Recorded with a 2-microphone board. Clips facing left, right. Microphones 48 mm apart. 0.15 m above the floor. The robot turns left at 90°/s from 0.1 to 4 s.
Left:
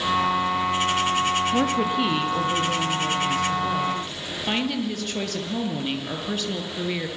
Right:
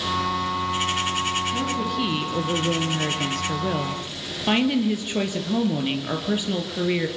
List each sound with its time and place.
1.5 s a woman speaking: 60° left, 3 m; by 7.1 s 165° right, 3 m